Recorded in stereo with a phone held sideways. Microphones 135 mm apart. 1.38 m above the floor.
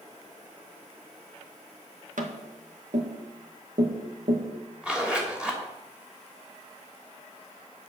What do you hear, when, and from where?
2.2 s tapping: 80° right, 1.9 m
4.8 s a zipper: 5° right (ahead or behind), 3 m